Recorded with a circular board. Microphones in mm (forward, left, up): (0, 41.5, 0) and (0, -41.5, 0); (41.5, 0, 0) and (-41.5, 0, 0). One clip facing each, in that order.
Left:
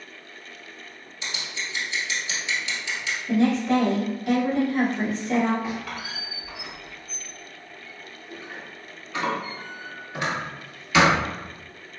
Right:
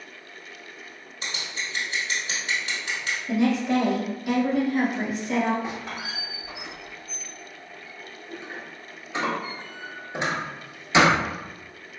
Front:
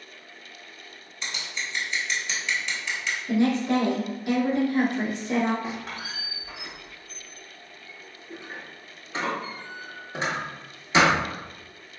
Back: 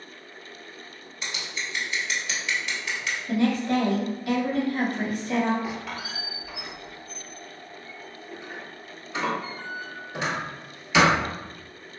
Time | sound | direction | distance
1.2 | scissors | 95° right | 1.3 m
3.3 | a woman speaking | 20° right | 1.2 m
5.6 | a squeak | 40° right | 1.1 m